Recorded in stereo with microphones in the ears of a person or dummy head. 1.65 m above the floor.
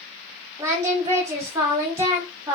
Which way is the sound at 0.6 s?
20° right (ahead or behind).